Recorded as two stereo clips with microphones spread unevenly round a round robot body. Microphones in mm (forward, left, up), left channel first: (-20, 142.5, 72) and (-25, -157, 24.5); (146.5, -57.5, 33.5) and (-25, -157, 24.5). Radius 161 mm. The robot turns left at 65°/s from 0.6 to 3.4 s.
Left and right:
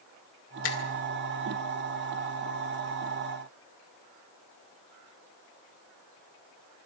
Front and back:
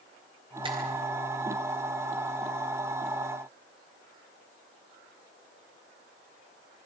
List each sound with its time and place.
0.6 s a finger snap: 140° left, 2.5 m; by 0.8 s 130° left, 2.5 m